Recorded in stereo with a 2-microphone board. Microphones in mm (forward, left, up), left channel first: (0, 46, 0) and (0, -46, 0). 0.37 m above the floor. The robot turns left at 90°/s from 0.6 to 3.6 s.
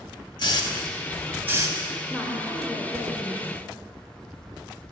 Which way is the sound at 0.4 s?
55° left (ahead or behind).